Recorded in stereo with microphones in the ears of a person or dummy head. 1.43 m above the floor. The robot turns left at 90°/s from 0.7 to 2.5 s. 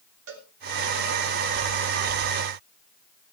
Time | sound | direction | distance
0.3 | a cowbell | 75° right (ahead or behind) | 3.5 m